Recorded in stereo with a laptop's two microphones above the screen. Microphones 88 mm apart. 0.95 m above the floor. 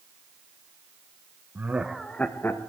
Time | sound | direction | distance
1.6 | laughter | 25° right (ahead or behind) | 0.8 m